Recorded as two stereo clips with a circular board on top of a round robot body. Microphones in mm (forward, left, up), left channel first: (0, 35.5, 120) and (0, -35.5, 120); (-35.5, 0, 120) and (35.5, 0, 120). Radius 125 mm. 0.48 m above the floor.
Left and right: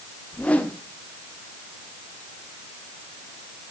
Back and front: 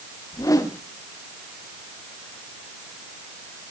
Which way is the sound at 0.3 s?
160° left.